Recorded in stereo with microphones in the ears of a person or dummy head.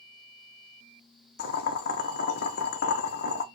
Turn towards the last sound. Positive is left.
turn(degrees=50)  # may be behind; listen again after turning